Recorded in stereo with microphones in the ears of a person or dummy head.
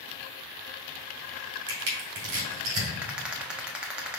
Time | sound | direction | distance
1.7 | crushing | 65° right (ahead or behind) | 2 m
3.0 | a rattle | 5° right (ahead or behind) | 0.5 m